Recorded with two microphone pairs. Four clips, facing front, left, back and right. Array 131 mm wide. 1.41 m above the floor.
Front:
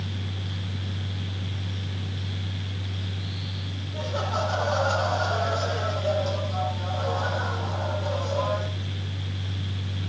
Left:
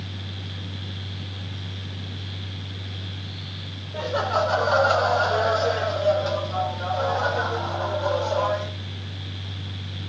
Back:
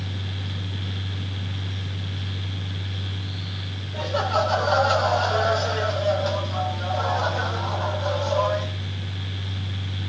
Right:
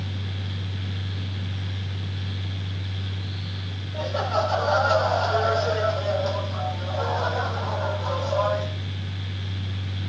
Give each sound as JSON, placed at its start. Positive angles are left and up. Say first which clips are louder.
{"t": 3.9, "sound": "laughter", "louder": "left 2 dB, back 6 dB", "azimuth_deg": 115, "distance_m": 6.0}